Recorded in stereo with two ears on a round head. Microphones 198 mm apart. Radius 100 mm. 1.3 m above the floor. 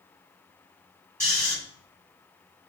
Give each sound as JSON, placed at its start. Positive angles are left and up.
{"t": 1.2, "sound": "snoring", "side_deg": -10, "distance_m": 1.9}